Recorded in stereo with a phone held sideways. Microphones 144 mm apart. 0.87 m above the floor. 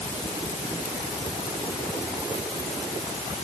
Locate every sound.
Only background noise.